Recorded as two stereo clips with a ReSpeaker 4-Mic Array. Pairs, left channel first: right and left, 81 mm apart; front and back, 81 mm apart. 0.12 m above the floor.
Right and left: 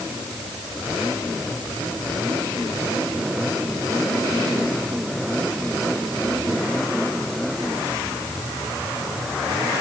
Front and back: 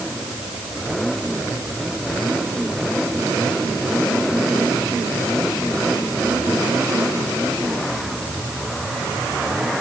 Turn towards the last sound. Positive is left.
No sound to turn to.